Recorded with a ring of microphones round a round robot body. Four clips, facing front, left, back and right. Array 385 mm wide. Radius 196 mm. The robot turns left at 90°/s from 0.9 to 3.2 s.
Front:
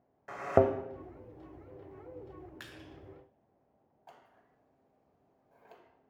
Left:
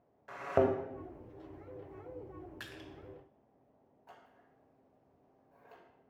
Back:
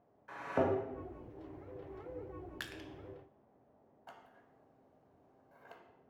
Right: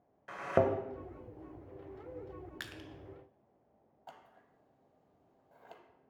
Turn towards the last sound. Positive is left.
turn(degrees=-110)